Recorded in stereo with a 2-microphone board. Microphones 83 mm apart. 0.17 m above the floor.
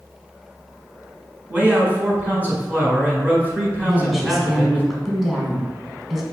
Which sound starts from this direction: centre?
A woman speaking, at 3.8 s.